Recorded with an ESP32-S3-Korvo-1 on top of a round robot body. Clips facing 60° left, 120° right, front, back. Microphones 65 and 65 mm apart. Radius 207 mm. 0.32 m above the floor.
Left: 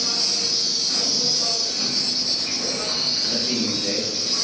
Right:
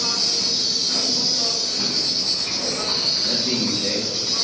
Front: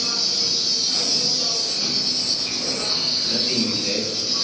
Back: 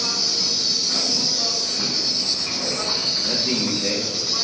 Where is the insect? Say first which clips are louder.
Right 2 dB, back 1 dB; 155° right, 2.5 m.